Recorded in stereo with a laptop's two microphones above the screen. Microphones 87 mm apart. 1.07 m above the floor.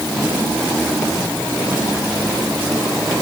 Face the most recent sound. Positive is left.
No sound to turn to.